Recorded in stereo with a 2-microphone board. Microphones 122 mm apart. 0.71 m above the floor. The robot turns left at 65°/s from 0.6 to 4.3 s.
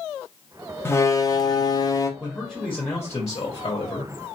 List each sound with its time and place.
0.8 s a door slam: 140° left, 0.6 m; by 2.1 s 60° left, 0.6 m
2.2 s a man speaking: 165° right, 1.0 m; by 4.1 s 70° left, 1.0 m